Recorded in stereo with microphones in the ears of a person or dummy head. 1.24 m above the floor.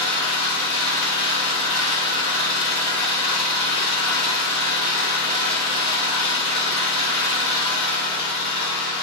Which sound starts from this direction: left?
An engine running, at 0.0 s.